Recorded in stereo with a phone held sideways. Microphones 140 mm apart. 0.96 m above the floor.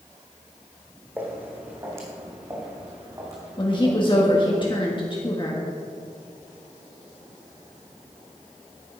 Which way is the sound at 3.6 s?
35° left (ahead or behind).